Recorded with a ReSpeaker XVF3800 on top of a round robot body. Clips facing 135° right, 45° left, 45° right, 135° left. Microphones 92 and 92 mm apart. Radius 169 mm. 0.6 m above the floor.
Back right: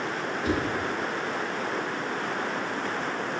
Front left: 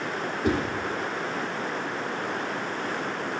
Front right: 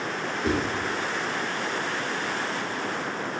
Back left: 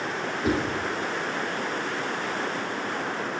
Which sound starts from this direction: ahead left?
A whoosh, at 0.4 s.